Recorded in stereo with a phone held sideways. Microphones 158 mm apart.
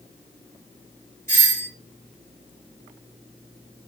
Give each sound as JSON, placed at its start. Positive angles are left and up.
{"t": 1.3, "sound": "a doorbell", "side_deg": 15, "distance_m": 2.5}